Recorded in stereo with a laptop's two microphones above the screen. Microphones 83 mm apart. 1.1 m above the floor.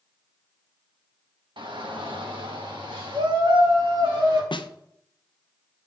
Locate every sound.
1.6 s a shout: 70° right (ahead or behind), 1.8 m
4.5 s a snare drum: 70° left (ahead or behind), 0.6 m